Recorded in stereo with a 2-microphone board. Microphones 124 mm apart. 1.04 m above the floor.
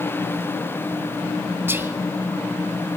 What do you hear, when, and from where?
1.7 s whispering: 15° right (ahead or behind), 1.1 m